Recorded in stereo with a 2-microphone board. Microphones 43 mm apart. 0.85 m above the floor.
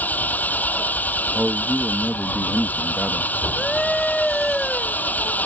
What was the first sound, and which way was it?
An engine running, 40° left (ahead or behind).